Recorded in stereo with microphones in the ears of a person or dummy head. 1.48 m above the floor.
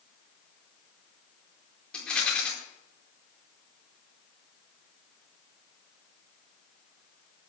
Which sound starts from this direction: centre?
A rattle, at 1.9 s.